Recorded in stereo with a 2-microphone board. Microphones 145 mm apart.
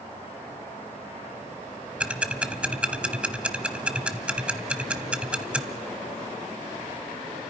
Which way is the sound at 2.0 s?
10° right (ahead or behind).